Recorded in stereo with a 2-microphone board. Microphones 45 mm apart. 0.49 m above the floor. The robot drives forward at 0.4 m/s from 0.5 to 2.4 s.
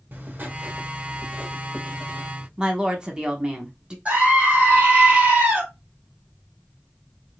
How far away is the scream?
About 2.5 m.